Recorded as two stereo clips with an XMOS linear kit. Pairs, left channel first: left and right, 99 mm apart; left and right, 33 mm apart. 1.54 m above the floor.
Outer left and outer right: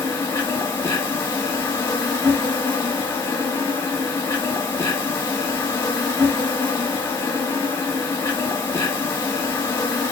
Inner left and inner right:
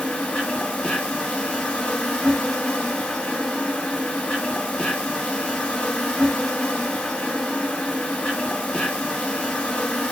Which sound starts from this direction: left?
An insect, at 0.0 s.